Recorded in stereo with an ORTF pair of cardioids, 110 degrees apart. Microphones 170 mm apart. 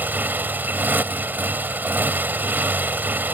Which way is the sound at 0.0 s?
10° right.